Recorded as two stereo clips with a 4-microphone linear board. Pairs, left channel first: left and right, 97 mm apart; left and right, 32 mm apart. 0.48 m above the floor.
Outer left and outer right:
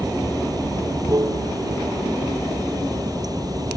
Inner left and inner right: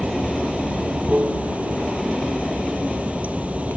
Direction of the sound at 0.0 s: 40° right (ahead or behind).